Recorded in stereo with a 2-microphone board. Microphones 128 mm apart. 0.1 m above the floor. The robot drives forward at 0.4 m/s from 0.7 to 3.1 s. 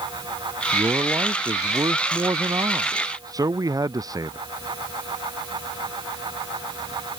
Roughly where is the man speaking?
Right.